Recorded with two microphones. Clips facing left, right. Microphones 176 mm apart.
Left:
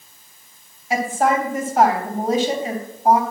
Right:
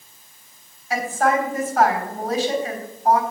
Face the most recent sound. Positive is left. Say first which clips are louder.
# left 1 dB
turn(degrees=30)  # may be behind; listen again after turning